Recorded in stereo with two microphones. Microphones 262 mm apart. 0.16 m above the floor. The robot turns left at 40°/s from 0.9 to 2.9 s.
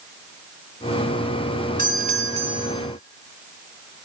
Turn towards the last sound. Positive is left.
turn(degrees=-155)